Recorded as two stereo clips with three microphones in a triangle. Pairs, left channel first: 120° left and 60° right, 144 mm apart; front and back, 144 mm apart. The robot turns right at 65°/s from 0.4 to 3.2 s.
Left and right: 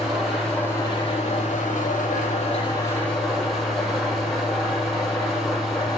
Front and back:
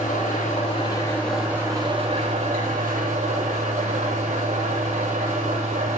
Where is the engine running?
25° left, 9 m; by 6.0 s 150° right, 9 m.